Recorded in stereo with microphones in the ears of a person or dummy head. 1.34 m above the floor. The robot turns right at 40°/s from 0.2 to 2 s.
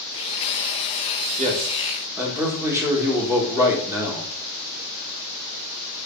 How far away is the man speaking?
About 1.4 m.